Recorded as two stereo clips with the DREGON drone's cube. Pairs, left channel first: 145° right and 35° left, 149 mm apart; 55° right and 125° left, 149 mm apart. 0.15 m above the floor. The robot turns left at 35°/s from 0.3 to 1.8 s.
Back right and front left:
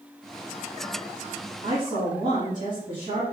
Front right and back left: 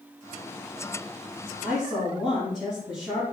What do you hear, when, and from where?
1.6 s a woman speaking: 35° left, 4 m; by 3.3 s 30° left, 4 m